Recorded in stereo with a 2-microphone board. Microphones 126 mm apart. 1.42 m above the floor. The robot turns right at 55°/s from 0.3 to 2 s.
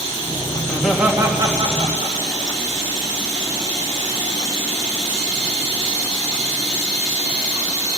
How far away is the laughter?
About 2 m.